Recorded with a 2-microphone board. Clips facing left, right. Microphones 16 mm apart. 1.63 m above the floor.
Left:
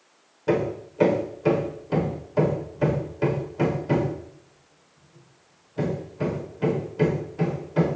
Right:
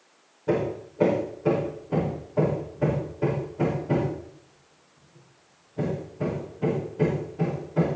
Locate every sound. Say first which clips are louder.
0.5 s hammering: left 2 dB; 80° left, 5.5 m